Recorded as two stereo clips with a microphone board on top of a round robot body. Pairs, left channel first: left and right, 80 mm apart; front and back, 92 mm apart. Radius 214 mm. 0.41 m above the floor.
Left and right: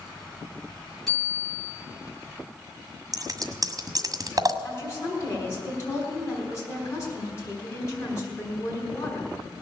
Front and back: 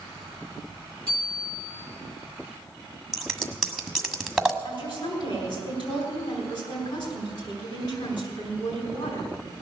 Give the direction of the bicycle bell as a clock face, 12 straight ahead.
12 o'clock.